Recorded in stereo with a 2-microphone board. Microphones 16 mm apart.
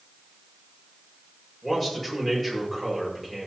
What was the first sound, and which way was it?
A man speaking, 15° left (ahead or behind).